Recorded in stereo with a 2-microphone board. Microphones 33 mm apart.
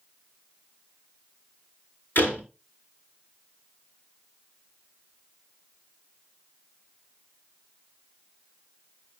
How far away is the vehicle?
I don't hear a vehicle.